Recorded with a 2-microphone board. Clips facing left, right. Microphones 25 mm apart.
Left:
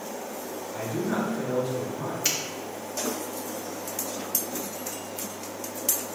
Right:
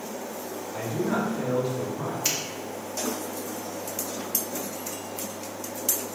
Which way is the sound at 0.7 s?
30° right (ahead or behind).